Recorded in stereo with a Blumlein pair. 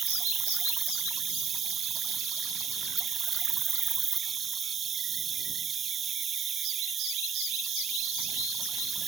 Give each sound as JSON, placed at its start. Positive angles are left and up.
{"t": 0.0, "sound": "an insect", "azimuth_deg": -20}